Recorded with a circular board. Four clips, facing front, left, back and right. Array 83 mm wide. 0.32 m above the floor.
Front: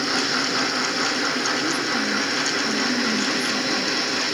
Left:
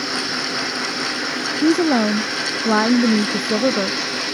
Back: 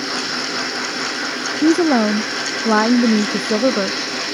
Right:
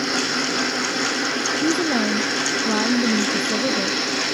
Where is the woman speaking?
155° left.